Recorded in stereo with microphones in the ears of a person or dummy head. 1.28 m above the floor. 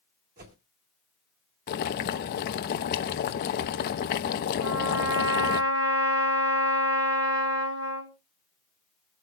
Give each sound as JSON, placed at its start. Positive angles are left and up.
{"t": 0.4, "sound": "a whoosh", "side_deg": -45, "distance_m": 2.0}
{"t": 1.7, "sound": "boiling", "side_deg": 55, "distance_m": 0.9}
{"t": 4.6, "sound": "a trumpet", "side_deg": -65, "distance_m": 3.0}